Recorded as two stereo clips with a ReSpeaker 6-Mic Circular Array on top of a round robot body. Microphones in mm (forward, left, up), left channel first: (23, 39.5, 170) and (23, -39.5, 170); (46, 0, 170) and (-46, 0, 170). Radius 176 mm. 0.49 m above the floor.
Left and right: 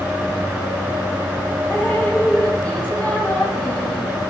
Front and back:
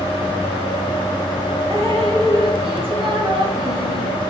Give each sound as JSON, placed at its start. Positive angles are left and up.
{"t": 1.7, "sound": "dripping", "azimuth_deg": 165, "distance_m": 3.5}